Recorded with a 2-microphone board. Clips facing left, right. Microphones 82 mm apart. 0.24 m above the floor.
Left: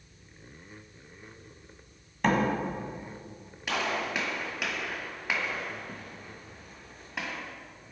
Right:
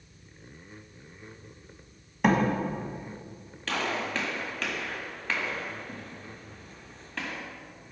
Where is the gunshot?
10° left (ahead or behind), 1.6 m.